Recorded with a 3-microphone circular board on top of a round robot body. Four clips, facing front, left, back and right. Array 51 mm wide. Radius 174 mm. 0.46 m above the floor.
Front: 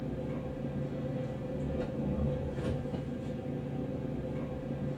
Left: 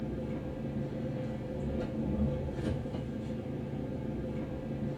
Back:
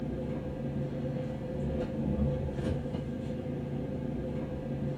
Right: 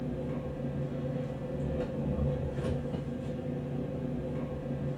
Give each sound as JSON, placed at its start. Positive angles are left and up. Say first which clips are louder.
{"t": 0.0, "sound": "an engine running", "louder": "right 1 dB, back 2 dB", "azimuth_deg": -70, "distance_m": 0.8}